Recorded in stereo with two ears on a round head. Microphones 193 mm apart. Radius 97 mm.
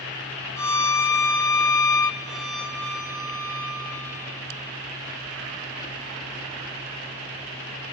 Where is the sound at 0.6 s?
15° left (ahead or behind), 1.1 m.